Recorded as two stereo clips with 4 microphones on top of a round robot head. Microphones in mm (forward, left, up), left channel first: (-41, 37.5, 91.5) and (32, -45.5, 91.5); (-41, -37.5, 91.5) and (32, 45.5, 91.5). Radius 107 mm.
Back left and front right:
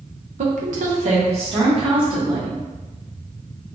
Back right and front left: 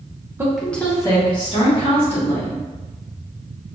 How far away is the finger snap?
I don't hear a finger snap.